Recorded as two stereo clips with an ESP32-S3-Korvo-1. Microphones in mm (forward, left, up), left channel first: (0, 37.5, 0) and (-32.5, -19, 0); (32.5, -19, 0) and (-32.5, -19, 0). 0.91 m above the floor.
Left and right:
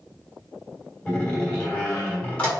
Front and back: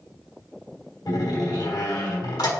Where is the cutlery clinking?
No cutlery clinking in this recording.